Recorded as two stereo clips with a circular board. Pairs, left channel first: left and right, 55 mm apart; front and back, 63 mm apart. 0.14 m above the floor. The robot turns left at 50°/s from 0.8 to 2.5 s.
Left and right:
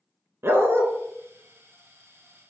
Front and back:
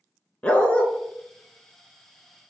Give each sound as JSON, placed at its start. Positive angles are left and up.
{"t": 0.4, "sound": "a dog barking", "azimuth_deg": -65, "distance_m": 0.6}